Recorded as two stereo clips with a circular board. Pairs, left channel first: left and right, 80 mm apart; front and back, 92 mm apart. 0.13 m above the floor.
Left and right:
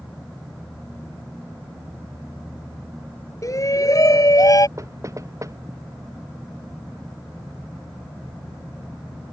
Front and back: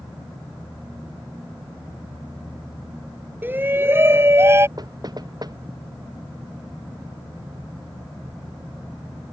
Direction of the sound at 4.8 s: 140° right.